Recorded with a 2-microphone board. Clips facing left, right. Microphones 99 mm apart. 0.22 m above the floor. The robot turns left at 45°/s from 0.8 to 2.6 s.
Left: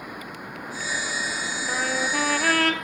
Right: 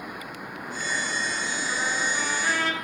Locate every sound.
1.7 s a trumpet: 120° left, 1.4 m; by 2.7 s 75° left, 1.4 m